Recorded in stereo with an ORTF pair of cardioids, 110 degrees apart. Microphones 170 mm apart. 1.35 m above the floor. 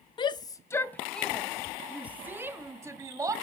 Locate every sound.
0.2 s a shout: 30° left, 1.0 m; by 3.3 s 20° right, 2 m